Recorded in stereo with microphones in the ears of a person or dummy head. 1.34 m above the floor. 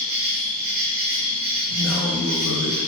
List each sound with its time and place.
0.0 s an insect: 35° right (ahead or behind), 0.8 m
1.7 s a man speaking: 70° left (ahead or behind), 1.6 m